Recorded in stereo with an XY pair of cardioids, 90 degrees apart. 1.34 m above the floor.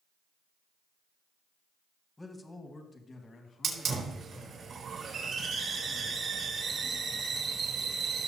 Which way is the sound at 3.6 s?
60° right.